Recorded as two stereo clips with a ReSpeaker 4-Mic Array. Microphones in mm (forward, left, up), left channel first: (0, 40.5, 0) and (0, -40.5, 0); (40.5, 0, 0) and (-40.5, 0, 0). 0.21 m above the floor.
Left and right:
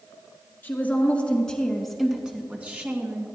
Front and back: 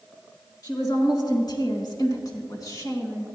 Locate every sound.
0.6 s a woman speaking: 25° left, 3 m; by 3.3 s 40° right, 2.5 m